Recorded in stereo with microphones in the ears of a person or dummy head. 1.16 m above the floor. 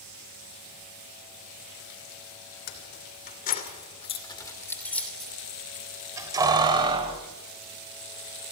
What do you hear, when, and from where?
2.7 s keys jangling: 60° left (ahead or behind), 3 m; by 7.2 s 25° right (ahead or behind), 4 m